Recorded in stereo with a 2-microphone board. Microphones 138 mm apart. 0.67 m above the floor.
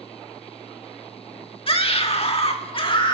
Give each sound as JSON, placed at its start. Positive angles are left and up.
{"t": 1.7, "sound": "a scream", "side_deg": 40, "distance_m": 1.5}